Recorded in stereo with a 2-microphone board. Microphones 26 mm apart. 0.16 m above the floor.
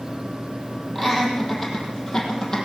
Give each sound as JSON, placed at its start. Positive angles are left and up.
{"t": 0.9, "sound": "laughter", "side_deg": 15, "distance_m": 5.5}